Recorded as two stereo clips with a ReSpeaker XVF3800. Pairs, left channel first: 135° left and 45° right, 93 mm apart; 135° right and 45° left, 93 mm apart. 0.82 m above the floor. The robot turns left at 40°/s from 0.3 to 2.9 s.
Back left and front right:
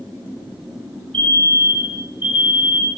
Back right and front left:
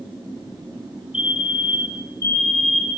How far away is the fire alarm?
About 9.5 m.